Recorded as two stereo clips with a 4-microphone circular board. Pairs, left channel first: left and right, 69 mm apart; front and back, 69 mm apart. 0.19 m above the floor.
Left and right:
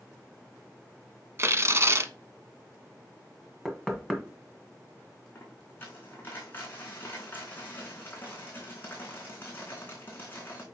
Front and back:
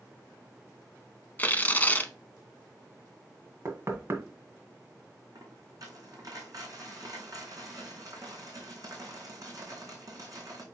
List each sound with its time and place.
1.4 s tearing paper: 55° right, 0.8 m
3.6 s knocking: 175° left, 1.4 m
5.3 s a dropped coin: 150° left, 4 m